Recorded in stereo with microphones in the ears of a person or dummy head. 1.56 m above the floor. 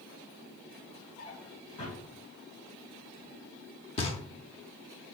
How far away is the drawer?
About 2 m.